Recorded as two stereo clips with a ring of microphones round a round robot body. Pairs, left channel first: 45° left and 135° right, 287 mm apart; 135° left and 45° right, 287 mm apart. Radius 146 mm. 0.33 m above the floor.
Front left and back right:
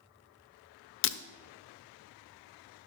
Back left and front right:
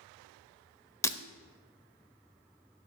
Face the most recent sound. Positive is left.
turn(degrees=60)